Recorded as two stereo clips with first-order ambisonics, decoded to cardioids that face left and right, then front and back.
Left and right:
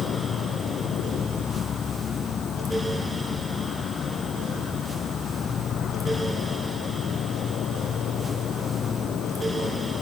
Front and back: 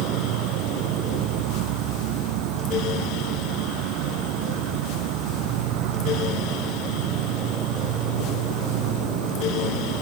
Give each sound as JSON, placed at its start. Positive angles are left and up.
{"t": 0.0, "sound": "an insect", "azimuth_deg": 155}